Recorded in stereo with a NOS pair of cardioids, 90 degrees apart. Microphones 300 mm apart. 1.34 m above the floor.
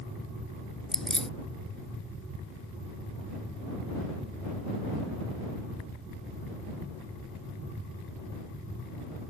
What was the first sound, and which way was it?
Keys jangling, straight ahead.